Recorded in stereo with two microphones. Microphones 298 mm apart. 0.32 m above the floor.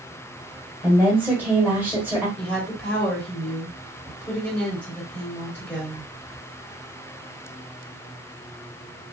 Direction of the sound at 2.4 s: 5° left (ahead or behind).